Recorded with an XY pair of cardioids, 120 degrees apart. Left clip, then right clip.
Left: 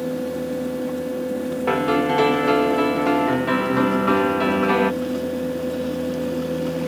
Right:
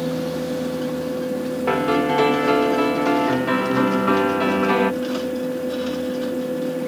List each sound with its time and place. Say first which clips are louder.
0.0 s a fan: right 1 dB; straight ahead
1.7 s a piano: even; straight ahead